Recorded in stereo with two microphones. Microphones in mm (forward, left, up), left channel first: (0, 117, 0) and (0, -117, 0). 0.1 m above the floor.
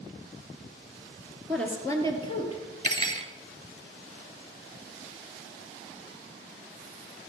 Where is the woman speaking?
Centre (ahead or behind), 2 m; by 2.6 s 30° left (ahead or behind), 2.5 m.